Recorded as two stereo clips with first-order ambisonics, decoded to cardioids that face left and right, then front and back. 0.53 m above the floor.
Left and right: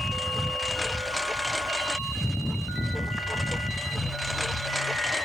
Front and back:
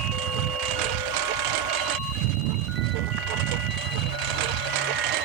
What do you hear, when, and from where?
0.0 s a lawn mower: straight behind; by 5.2 s 175° left